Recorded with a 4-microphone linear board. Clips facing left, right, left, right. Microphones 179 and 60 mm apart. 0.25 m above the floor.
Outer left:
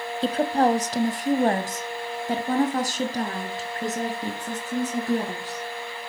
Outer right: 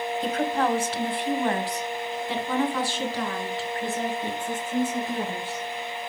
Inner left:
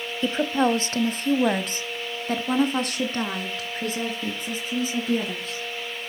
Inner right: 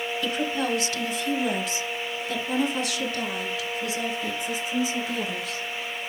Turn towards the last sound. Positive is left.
turn(degrees=40)  # may be behind; listen again after turning